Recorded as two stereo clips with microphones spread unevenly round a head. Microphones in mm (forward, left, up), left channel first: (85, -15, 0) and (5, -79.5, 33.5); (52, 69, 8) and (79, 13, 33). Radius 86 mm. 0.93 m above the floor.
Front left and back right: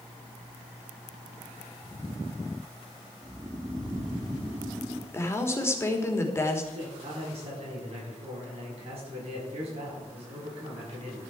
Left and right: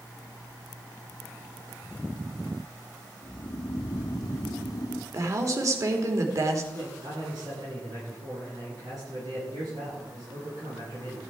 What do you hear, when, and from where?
3.2 s snoring: 150° left, 1.1 m
5.1 s a woman speaking: 25° right, 3 m
6.7 s a man speaking: 125° right, 8 m